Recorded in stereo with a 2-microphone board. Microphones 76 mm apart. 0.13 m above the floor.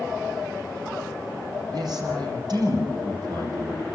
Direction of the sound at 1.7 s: 65° right (ahead or behind).